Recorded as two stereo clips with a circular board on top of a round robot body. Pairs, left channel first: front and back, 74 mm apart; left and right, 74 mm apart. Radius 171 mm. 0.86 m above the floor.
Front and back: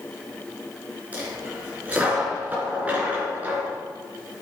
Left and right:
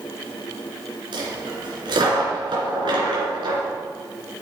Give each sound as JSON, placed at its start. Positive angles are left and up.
{"t": 1.1, "sound": "a dropped coin", "azimuth_deg": -110, "distance_m": 3.0}